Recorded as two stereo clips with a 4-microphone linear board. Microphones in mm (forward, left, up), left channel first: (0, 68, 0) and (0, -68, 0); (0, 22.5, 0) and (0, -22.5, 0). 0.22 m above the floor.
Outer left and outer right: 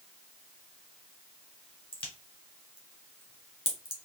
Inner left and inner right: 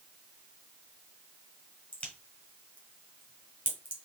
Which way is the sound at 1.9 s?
40° left (ahead or behind).